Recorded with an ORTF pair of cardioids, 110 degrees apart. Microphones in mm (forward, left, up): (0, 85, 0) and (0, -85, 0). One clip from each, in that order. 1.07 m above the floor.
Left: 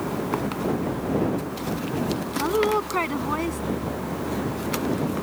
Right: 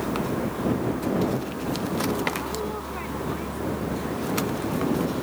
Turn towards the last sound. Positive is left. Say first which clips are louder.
# left 8 dB
turn(degrees=65)